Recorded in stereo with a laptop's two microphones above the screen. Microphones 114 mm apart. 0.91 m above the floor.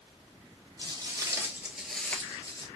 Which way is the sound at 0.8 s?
35° right (ahead or behind).